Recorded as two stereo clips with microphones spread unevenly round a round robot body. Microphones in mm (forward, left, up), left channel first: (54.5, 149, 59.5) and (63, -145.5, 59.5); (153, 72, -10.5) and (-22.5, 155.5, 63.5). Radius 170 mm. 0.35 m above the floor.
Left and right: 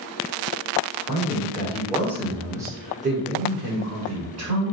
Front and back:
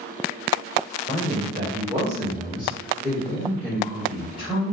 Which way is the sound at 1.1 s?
115° left.